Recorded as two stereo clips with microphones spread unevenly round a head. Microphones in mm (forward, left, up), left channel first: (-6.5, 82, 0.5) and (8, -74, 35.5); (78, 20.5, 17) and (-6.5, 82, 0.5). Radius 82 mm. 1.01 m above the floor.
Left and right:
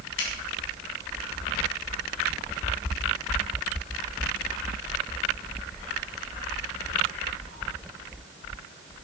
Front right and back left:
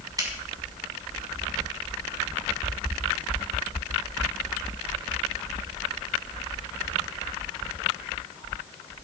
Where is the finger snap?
90° left, 6.5 m.